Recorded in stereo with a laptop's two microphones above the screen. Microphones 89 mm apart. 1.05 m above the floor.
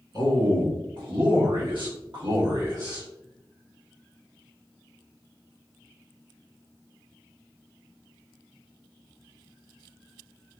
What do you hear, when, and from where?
0.1 s a man speaking: 55° right (ahead or behind), 1.8 m; by 3.1 s 45° right (ahead or behind), 1.8 m